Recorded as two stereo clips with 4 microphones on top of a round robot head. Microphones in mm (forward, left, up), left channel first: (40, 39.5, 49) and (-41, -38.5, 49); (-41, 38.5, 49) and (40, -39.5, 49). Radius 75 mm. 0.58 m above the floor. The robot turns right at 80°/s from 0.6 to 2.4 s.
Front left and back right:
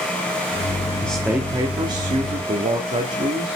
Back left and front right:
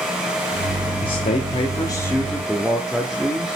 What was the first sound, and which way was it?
A man speaking, 115° left.